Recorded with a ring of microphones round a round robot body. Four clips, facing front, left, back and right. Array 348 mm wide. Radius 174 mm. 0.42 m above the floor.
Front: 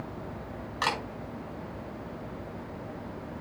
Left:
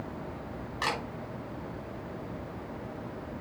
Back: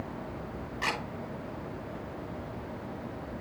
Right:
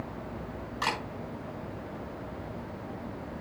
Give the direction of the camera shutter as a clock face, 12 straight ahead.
12 o'clock.